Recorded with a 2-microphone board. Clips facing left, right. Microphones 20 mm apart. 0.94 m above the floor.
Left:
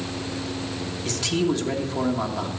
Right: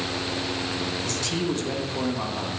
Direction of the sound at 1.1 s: 10° left (ahead or behind).